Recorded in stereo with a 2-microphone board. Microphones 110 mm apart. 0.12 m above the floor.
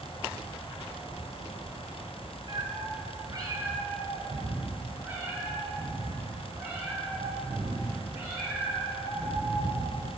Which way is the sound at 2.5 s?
40° right (ahead or behind).